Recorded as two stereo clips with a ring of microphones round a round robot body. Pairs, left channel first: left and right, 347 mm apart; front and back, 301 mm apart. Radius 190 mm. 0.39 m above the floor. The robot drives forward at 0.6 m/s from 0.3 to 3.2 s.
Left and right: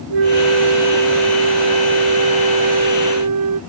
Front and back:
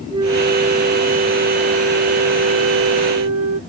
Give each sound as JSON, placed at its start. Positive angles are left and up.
{"t": 0.1, "sound": "a flute", "azimuth_deg": -100}